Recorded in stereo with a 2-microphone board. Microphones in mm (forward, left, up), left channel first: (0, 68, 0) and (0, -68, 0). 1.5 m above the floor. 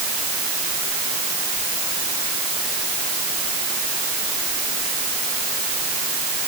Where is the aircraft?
I don't hear an aircraft.